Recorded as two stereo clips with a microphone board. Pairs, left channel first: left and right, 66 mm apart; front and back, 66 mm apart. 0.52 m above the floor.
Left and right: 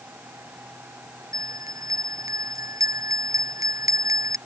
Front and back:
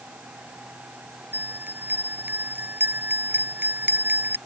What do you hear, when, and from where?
1.3 s a bell: 120° right